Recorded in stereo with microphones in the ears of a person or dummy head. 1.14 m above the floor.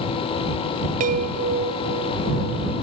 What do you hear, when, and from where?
1.0 s a chime: 45° right (ahead or behind)